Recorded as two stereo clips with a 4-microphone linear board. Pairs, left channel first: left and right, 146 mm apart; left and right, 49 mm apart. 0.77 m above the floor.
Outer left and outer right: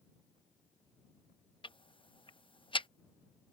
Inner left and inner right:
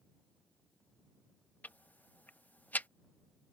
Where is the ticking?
35° left (ahead or behind).